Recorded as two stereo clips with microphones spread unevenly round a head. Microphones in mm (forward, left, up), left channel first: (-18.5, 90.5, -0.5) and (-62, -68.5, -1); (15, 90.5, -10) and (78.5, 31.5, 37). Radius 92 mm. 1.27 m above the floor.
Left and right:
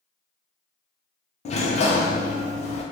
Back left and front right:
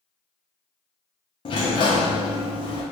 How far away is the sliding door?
About 0.6 m.